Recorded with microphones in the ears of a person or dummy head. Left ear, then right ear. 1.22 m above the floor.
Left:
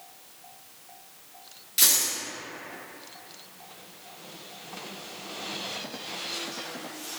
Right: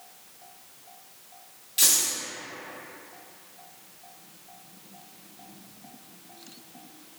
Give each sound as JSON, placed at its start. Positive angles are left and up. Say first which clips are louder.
{"t": 1.8, "sound": "a dropped coin", "louder": "even", "side_deg": 10, "distance_m": 1.1}